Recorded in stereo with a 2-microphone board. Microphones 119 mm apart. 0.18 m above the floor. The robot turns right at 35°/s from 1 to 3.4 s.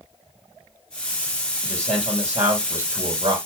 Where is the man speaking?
165° left, 5 m; by 3.4 s 135° right, 5 m.